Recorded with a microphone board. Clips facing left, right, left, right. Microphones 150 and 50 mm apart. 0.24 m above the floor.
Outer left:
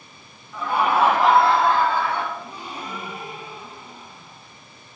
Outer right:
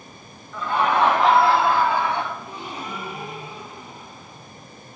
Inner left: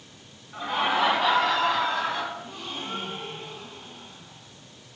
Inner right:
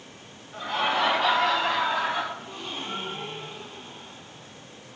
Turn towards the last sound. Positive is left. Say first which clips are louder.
# outer right 1 dB, even
turn(degrees=-25)  # may be behind; listen again after turning